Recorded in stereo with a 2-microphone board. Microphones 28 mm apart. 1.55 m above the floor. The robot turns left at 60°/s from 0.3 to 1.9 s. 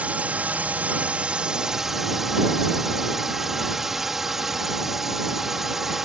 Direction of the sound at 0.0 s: 70° right.